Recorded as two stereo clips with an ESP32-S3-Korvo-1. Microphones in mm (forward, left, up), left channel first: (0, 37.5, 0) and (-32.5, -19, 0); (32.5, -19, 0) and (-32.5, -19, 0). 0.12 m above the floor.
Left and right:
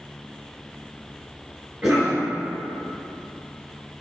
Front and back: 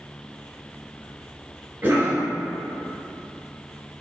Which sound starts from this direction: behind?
A cough, at 1.8 s.